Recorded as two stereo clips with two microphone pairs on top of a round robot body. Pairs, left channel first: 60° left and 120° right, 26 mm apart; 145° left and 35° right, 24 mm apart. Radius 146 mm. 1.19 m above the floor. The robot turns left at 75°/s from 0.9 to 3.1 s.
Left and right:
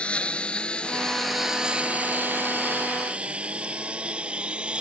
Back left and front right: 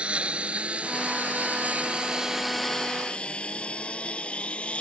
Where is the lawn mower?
5° left; by 4.8 s 175° right.